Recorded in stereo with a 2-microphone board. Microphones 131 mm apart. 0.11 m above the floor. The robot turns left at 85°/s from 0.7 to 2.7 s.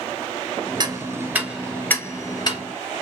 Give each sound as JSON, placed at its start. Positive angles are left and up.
{"t": 0.8, "sound": "ticking", "side_deg": -30, "distance_m": 1.7}